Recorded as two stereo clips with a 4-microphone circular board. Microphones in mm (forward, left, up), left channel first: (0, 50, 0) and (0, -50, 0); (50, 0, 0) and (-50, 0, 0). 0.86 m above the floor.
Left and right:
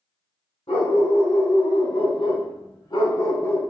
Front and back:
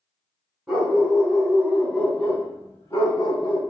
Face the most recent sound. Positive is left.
turn(degrees=30)